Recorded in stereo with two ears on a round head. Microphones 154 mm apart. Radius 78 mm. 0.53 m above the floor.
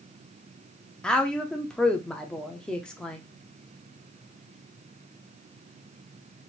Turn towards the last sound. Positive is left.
turn(degrees=5)  # may be behind; listen again after turning